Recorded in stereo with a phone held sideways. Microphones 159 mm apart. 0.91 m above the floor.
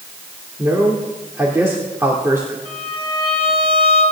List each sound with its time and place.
0.6 s a man speaking: 15° right (ahead or behind), 2.5 m
2.6 s a violin: 35° right (ahead or behind), 5 m